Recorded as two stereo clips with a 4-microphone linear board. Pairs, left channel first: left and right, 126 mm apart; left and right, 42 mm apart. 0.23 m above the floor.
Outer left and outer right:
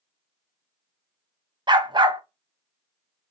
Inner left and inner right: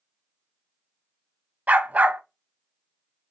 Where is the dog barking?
35° right (ahead or behind), 0.6 m.